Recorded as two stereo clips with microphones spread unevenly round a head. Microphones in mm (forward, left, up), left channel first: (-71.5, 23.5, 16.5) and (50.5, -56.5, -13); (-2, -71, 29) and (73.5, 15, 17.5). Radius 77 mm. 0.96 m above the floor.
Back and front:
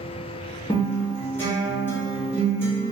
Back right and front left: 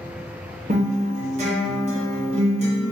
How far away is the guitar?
About 1.3 m.